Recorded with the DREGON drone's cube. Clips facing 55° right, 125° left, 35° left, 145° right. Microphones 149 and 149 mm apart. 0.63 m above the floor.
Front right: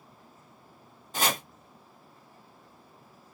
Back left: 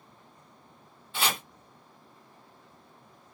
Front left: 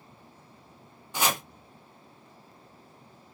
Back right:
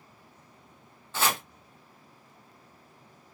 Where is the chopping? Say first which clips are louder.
Front right 2 dB, even; 35° right, 0.9 m.